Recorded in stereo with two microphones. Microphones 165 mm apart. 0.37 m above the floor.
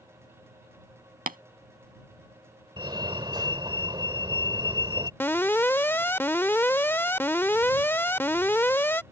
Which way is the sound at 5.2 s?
15° left (ahead or behind).